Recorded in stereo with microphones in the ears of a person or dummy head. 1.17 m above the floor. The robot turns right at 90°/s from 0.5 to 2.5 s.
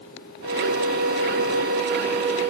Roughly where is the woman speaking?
No woman speaking in this recording.